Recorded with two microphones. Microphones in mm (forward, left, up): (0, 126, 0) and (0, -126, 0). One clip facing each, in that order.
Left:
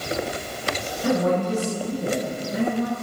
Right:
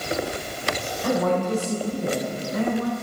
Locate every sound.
1.0 s a woman speaking: 35° left (ahead or behind), 1.9 m